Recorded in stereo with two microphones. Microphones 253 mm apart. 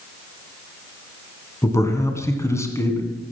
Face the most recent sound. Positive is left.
turn(degrees=10)  # may be behind; listen again after turning